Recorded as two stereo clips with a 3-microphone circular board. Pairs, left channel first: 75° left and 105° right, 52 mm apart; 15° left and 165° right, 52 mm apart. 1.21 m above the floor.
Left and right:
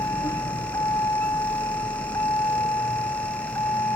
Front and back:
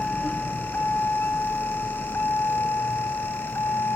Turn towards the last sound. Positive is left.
turn(degrees=55)